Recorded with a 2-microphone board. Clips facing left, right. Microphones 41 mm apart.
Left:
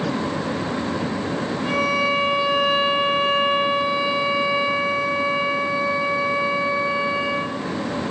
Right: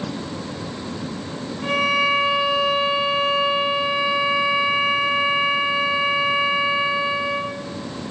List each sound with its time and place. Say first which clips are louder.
1.6 s a violin: right 3 dB; 40° right (ahead or behind), 0.6 m